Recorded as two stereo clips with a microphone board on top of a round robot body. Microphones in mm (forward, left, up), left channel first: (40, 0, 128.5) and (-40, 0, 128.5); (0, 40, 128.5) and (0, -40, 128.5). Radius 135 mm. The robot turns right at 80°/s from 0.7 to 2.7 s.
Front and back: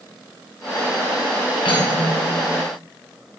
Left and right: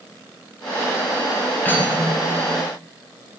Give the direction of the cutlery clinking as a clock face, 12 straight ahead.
11 o'clock.